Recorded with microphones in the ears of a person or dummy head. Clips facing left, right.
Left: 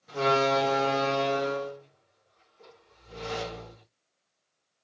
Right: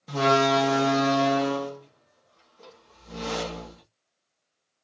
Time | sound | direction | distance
0.1 | a door slam | 85° right | 1.2 m